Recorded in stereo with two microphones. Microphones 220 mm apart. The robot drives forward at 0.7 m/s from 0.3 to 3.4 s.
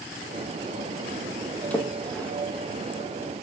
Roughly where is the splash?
Centre.